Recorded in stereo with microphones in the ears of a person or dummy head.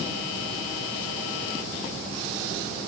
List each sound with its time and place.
Only background noise.